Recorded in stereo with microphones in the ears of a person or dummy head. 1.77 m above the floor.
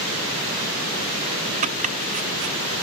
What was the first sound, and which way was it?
Chopping, 45° right (ahead or behind).